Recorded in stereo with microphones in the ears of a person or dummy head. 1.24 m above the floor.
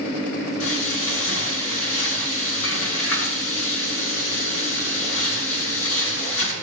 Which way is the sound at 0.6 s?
80° left.